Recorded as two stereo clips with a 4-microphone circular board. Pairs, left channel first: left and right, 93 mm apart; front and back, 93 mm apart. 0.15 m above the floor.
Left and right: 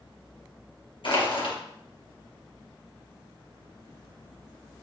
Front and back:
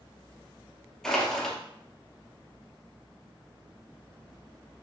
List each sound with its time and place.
1.0 s crushing: 85° left, 3 m